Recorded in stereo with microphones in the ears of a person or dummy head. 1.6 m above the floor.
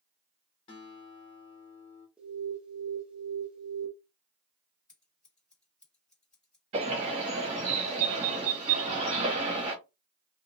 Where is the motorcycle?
I don't hear a motorcycle.